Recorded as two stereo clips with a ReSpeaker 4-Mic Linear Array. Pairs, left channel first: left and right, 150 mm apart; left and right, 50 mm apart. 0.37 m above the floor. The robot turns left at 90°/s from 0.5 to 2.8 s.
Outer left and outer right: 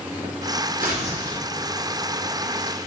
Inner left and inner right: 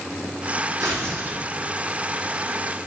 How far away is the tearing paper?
About 3.5 m.